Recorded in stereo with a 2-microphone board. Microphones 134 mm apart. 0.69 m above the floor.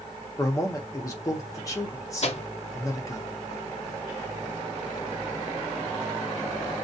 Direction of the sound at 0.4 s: 25° left (ahead or behind).